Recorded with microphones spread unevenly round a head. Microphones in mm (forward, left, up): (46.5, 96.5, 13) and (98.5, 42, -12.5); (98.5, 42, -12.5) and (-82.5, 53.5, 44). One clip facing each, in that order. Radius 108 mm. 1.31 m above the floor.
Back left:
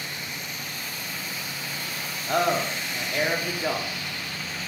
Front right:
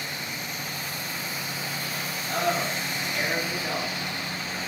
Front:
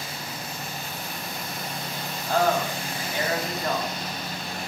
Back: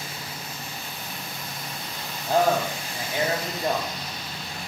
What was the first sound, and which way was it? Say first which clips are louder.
A man speaking: back left 3 dB, back 2 dB; 100° left.